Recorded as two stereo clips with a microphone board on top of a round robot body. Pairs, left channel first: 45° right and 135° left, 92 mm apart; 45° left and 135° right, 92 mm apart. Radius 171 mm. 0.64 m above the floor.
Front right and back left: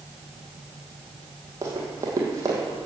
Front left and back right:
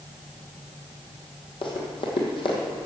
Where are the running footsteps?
80° left, 2 m.